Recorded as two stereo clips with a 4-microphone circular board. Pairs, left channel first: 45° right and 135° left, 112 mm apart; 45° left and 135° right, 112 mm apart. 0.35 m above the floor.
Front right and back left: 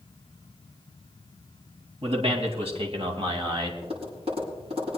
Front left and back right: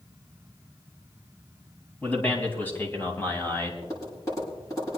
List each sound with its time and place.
2.0 s a man speaking: 120° left, 3.5 m; by 3.7 s 105° left, 2.5 m
3.8 s tapping: 105° left, 7.5 m